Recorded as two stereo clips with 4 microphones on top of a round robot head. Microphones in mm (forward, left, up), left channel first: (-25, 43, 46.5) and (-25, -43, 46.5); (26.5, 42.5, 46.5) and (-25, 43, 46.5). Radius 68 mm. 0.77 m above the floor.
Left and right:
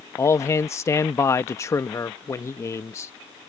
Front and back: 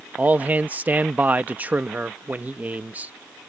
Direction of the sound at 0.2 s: 135° left.